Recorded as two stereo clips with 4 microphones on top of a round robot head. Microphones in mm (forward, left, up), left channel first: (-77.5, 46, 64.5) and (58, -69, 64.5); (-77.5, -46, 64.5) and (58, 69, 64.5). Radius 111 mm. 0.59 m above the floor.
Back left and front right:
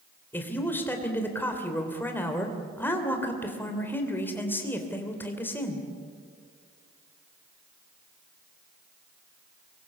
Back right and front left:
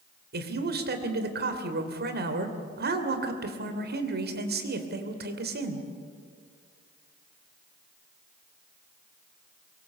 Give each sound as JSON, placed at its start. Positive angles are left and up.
{"t": 0.3, "sound": "a man speaking", "azimuth_deg": 60, "distance_m": 3.0}